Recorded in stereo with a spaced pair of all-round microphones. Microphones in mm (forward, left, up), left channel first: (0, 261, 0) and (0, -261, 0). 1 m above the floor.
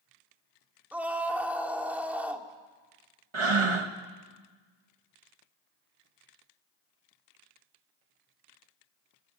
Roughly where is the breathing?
Right.